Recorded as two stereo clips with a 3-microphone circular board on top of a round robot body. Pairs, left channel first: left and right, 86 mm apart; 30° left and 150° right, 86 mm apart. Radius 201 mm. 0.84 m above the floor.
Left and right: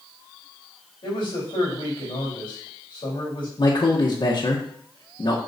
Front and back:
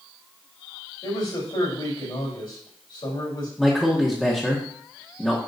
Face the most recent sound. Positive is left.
turn(degrees=110)